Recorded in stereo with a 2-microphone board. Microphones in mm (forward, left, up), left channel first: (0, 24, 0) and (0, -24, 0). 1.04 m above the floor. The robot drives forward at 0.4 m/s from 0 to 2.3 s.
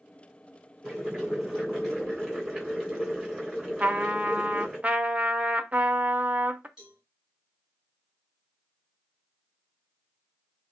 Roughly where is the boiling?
Centre.